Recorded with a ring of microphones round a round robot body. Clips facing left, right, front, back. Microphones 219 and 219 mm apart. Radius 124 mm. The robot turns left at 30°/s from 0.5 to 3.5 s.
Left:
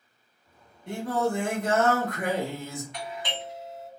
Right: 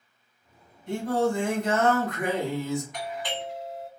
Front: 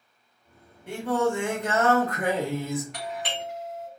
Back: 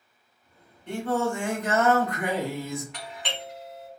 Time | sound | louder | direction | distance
0.9 | singing | right 2 dB, front 2 dB | 80° left | 1.7 m
2.9 | a doorbell | right 3 dB, front 4 dB | 40° left | 2.5 m